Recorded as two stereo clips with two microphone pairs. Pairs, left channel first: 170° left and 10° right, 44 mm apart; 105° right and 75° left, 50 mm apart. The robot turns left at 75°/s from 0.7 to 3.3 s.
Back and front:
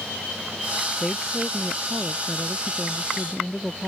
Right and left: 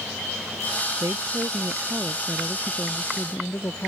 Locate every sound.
1.0 s a woman speaking: 80° left; by 3.9 s 90° right